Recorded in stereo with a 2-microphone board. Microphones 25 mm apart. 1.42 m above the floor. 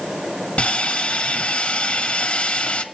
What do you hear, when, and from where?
0.6 s sawing: 65° left (ahead or behind), 1.5 m